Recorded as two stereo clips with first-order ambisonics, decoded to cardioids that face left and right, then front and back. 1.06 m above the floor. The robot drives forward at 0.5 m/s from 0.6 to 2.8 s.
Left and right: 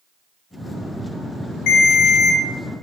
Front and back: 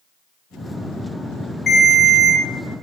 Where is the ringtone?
75° left, 1.0 m; by 2.4 s 100° left, 1.0 m.